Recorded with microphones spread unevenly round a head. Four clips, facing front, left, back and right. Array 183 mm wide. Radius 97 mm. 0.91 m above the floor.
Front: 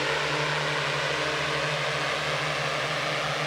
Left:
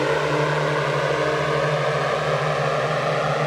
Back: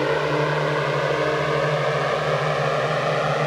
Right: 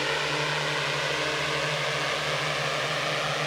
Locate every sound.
0.0 s a drone: 135° left; by 3.5 s 140° left